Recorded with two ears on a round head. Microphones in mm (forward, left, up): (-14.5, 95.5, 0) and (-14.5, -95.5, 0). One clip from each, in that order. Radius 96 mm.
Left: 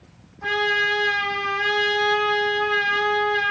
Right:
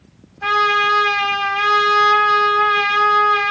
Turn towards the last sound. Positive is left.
turn(degrees=-80)